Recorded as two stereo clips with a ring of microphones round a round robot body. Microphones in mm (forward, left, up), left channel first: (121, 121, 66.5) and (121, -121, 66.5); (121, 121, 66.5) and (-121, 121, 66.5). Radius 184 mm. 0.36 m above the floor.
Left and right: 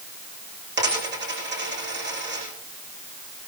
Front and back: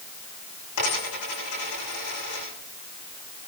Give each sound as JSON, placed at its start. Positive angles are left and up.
{"t": 0.8, "sound": "a dropped coin", "azimuth_deg": -45, "distance_m": 9.0}